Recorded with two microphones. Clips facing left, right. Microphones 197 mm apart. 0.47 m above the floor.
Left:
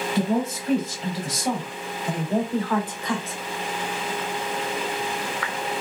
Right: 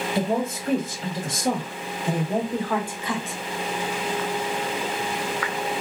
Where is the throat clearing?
I don't hear throat clearing.